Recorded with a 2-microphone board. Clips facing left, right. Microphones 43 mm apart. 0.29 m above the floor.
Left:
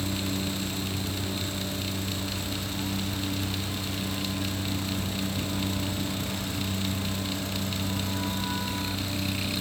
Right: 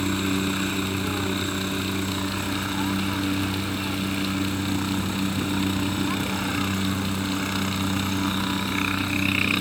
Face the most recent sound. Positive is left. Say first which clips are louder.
# right 6 dB
turn(degrees=-60)  # may be behind; listen again after turning